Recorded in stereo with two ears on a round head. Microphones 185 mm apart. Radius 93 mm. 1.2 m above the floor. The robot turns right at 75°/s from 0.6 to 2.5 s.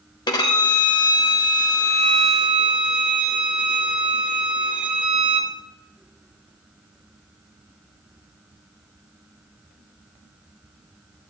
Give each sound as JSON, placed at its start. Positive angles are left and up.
{"t": 0.3, "sound": "a violin", "side_deg": 20, "distance_m": 1.0}